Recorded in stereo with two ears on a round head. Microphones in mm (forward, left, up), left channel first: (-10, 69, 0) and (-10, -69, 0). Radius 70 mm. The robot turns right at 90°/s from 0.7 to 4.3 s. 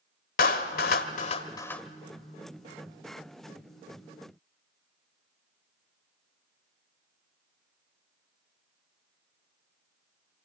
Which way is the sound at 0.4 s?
60° left (ahead or behind).